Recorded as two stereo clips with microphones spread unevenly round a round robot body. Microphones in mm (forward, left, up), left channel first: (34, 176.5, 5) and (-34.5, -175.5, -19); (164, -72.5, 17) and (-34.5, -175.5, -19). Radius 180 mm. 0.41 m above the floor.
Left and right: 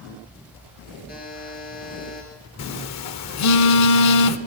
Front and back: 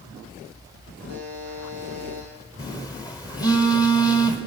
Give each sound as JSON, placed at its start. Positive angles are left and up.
{"t": 1.1, "sound": "a buzzer", "azimuth_deg": 145, "distance_m": 8.0}
{"t": 2.6, "sound": "a phone buzzing", "azimuth_deg": 110, "distance_m": 0.9}